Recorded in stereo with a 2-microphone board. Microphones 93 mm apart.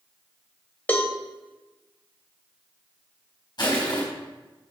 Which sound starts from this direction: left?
Crushing, at 3.6 s.